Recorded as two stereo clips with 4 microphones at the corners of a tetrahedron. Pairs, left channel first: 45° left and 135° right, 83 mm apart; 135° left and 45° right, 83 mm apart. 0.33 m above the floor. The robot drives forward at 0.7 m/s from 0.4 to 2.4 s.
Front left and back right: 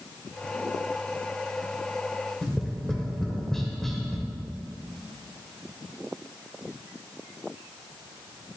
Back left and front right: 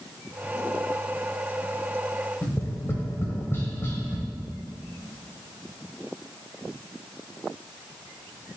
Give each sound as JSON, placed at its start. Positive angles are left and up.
{"t": 2.4, "sound": "tapping", "azimuth_deg": 125, "distance_m": 1.0}